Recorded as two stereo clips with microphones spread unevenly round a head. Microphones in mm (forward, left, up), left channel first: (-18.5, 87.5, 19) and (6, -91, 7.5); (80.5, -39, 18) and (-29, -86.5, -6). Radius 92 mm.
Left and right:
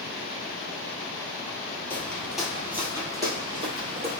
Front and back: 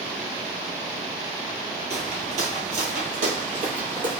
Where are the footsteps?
170° left, 1.4 m; by 4.2 s 135° right, 1.9 m.